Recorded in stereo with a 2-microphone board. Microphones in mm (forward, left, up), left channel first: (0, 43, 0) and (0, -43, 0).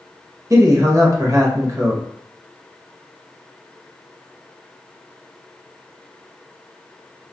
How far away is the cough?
No cough in this recording.